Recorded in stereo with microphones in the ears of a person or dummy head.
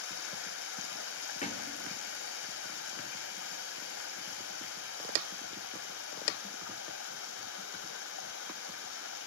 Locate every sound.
0.0 s running water: 65° left (ahead or behind), 2.5 m
1.4 s a thud: 40° left (ahead or behind), 2.5 m